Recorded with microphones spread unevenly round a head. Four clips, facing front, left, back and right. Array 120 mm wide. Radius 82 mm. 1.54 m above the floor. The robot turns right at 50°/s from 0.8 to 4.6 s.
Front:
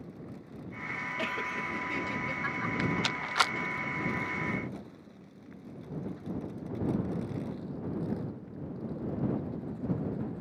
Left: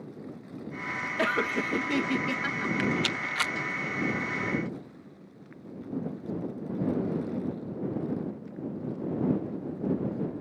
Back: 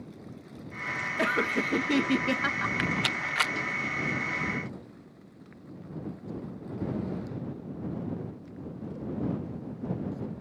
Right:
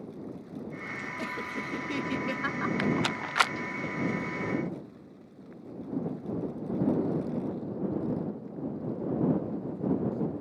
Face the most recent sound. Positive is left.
turn(degrees=-15)